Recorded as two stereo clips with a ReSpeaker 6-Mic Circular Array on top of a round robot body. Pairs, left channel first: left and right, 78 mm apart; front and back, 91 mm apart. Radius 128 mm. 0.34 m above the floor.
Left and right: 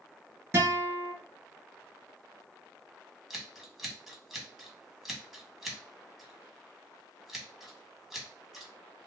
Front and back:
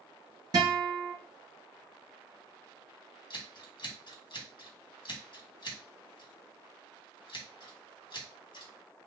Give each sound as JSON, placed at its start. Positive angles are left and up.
{"t": 0.5, "sound": "a guitar", "azimuth_deg": -145, "distance_m": 2.5}
{"t": 3.3, "sound": "scissors", "azimuth_deg": 0, "distance_m": 1.8}